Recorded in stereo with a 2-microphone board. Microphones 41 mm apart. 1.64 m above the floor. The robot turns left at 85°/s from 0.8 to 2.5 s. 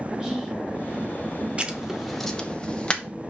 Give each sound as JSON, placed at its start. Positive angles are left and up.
{"t": 0.2, "sound": "whispering", "side_deg": -10, "distance_m": 2.5}
{"t": 1.6, "sound": "writing", "side_deg": -25, "distance_m": 0.9}